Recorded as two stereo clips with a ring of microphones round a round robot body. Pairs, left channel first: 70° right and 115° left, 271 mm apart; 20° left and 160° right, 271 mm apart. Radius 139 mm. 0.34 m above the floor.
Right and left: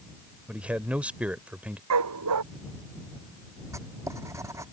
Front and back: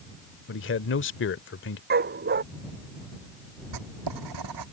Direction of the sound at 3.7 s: 170° right.